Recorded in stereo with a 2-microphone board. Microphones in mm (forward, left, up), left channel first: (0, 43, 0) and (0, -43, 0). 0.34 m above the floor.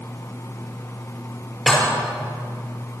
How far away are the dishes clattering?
About 3.5 m.